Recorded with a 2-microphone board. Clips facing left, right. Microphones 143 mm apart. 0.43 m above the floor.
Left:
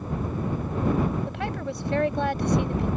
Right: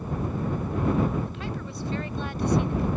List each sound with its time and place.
1.3 s a woman speaking: 70° left (ahead or behind)